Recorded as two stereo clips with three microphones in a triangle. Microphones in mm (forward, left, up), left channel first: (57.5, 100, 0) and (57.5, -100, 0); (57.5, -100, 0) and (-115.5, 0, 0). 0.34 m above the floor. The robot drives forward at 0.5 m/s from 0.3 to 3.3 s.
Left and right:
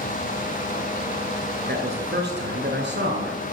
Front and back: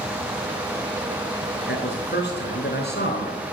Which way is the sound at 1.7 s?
55° right.